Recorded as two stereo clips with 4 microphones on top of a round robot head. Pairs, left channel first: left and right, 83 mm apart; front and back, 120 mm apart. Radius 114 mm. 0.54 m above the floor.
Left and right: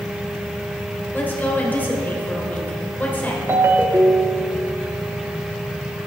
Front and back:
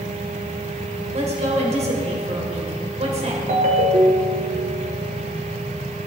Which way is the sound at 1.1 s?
155° left.